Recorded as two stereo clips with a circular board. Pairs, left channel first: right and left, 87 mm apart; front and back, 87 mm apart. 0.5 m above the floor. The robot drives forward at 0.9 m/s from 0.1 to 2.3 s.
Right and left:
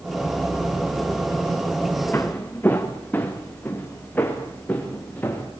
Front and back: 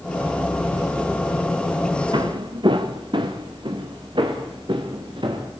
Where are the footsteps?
155° right, 2.5 m; by 5.5 s 160° right, 6.5 m.